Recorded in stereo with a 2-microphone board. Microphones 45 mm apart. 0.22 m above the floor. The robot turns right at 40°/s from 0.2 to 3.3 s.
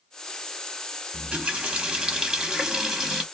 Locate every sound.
1.1 s a running tap: 25° right (ahead or behind), 0.8 m; by 3.2 s 5° right (ahead or behind), 0.8 m